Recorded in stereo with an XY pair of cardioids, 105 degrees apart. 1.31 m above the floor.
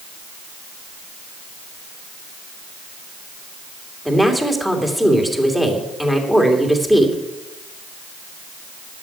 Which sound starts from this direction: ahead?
A woman speaking, at 4.0 s.